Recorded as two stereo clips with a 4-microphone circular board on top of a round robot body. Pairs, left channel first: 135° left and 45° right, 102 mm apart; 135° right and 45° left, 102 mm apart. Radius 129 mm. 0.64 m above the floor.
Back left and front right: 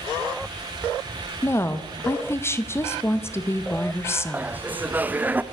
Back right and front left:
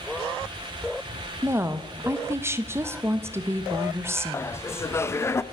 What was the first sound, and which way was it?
A woman speaking, 90° left.